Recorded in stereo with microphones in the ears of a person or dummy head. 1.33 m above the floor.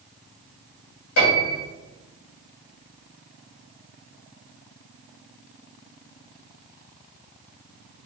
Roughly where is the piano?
Left.